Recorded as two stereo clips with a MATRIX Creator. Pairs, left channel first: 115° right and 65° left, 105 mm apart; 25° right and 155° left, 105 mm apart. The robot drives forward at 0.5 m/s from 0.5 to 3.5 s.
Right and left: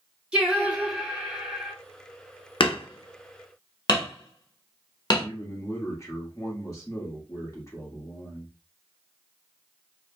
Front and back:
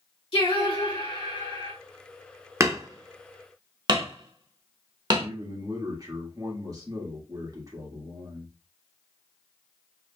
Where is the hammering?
145° right, 0.6 m; by 5.3 s 160° right, 1.0 m.